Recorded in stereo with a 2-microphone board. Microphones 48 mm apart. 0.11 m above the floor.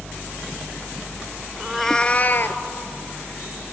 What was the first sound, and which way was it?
A cat meowing, 15° right (ahead or behind).